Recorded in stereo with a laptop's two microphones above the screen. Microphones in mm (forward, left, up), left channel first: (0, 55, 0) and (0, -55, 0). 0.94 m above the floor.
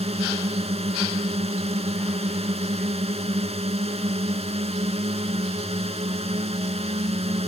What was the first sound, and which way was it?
A drone, 65° right (ahead or behind).